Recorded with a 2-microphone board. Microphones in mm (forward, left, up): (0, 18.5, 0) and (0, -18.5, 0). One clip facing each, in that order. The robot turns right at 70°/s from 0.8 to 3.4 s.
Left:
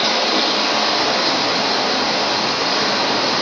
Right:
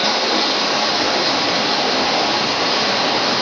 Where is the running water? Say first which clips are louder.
Even; 160° left, 1.2 m; by 3.4 s 20° right, 1.2 m.